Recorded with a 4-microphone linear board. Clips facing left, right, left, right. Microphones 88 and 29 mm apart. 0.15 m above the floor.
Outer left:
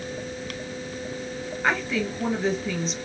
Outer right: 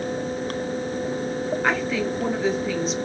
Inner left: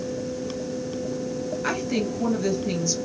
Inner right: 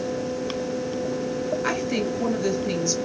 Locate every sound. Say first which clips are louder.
1.6 s a woman speaking: outer left 1 dB, inner right 1 dB; centre (ahead or behind), 2.5 m